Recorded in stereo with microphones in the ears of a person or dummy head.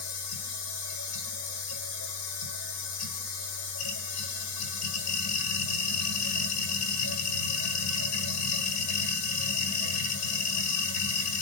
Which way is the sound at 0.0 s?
80° left.